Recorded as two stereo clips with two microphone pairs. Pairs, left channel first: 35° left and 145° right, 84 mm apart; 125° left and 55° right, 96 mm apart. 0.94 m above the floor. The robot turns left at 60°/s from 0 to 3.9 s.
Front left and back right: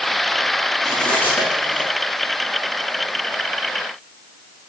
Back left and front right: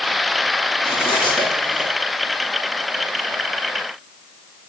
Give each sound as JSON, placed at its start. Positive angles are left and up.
{"t": 0.8, "sound": "cutlery clinking", "azimuth_deg": 125, "distance_m": 4.5}